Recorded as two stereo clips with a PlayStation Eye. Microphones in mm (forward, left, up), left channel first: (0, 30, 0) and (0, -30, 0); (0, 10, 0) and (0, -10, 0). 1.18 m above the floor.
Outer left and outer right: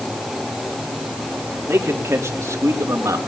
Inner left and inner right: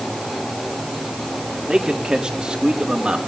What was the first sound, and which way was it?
A man speaking, 40° right (ahead or behind).